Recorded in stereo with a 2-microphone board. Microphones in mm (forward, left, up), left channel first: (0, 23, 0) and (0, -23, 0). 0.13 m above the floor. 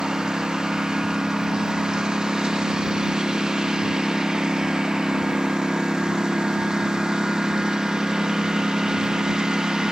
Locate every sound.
0.0 s a lawn mower: 15° right (ahead or behind)